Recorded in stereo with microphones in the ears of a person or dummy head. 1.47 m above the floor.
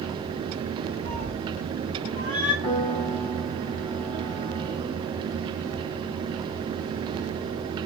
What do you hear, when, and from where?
1.1 s a cat meowing: 40° left (ahead or behind), 1.1 m; by 2.5 s 60° left (ahead or behind), 1.7 m
2.6 s a piano: 30° left (ahead or behind), 1.0 m